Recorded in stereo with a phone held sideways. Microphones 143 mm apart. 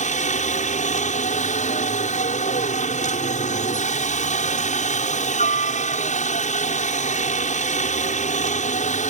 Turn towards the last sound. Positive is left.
turn(degrees=60)  # may be behind; listen again after turning